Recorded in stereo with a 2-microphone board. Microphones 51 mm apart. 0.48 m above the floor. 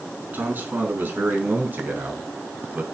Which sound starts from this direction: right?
A man speaking, at 0.3 s.